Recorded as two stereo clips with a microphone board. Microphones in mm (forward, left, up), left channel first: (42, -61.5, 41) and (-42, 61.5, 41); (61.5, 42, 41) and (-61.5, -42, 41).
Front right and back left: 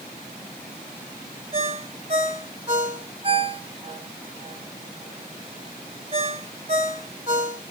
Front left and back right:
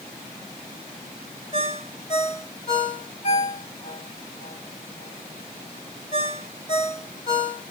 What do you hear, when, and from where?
1.5 s a ringtone: 75° left, 2.5 m